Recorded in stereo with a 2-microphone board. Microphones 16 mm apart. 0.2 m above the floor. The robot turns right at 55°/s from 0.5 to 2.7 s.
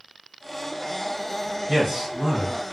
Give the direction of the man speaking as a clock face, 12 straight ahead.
1 o'clock.